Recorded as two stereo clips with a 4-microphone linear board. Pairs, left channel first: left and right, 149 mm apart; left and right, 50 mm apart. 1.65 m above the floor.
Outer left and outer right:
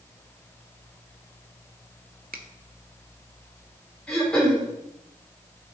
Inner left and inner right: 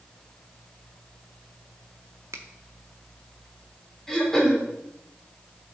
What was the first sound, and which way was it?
A finger snap, 80° right.